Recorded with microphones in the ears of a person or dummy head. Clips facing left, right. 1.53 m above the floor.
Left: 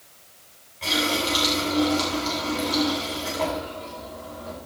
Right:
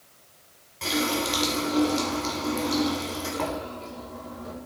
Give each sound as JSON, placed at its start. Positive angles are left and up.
{"t": 0.8, "sound": "a running tap", "side_deg": -75, "distance_m": 4.5}